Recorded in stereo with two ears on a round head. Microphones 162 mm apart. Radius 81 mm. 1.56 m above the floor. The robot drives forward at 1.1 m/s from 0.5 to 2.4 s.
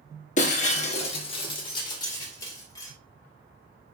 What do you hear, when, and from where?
0.4 s breaking glass: 45° left (ahead or behind), 1.4 m; by 2.9 s 20° left (ahead or behind), 2.5 m